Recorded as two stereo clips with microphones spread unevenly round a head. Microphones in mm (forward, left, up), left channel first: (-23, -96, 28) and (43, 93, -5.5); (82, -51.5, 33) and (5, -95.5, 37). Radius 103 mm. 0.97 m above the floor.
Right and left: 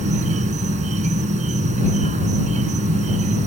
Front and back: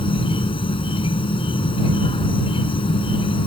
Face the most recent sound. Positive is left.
turn(degrees=10)